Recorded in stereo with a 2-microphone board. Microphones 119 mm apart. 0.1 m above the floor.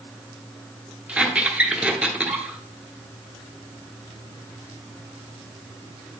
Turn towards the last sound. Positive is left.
turn(degrees=-10)  # may be behind; listen again after turning